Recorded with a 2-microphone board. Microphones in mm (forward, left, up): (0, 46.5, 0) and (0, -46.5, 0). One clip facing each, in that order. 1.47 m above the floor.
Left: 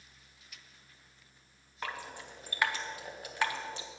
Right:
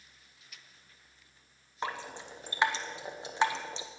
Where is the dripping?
25° right (ahead or behind), 0.8 m.